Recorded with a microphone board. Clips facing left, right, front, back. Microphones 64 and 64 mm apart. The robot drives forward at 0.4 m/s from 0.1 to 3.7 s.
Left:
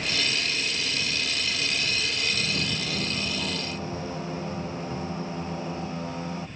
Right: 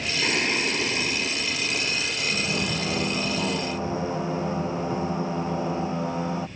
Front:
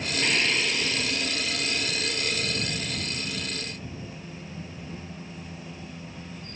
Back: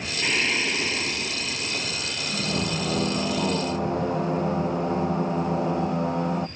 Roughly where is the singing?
Right.